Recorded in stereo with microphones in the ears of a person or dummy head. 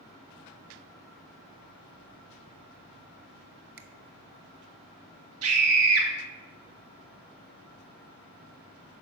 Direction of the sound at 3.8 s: 60° right (ahead or behind).